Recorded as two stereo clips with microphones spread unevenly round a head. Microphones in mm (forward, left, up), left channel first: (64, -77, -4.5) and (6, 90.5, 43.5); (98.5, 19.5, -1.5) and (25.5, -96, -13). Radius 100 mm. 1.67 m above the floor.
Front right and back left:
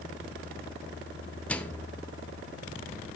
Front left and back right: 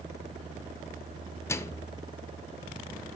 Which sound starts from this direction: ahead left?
A microwave, at 1.5 s.